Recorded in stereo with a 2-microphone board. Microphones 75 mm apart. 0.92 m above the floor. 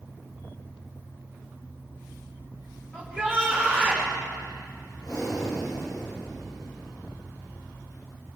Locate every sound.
2.9 s a shout: 15° left (ahead or behind), 5 m; by 4.1 s 10° left (ahead or behind), 3.5 m
5.0 s breathing: 60° left (ahead or behind), 5 m